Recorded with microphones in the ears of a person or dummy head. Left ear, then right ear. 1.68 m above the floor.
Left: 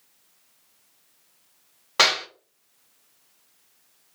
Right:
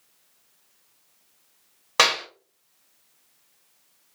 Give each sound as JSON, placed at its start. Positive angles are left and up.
{"t": 2.0, "sound": "a clap", "side_deg": -20, "distance_m": 1.6}